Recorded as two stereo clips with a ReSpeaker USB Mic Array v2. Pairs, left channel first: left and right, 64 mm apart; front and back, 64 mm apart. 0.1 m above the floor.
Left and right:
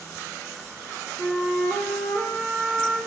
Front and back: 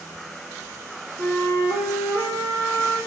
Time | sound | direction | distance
1.2 | a flute | 140° right | 2.5 m